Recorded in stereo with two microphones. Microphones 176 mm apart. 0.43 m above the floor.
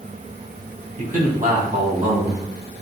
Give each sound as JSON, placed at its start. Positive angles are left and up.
{"t": 1.0, "sound": "a man speaking", "side_deg": -45, "distance_m": 4.0}